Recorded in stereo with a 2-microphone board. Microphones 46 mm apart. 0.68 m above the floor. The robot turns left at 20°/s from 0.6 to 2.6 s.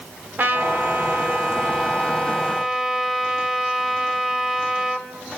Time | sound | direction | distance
0.4 | a trumpet | 130° right | 1.8 m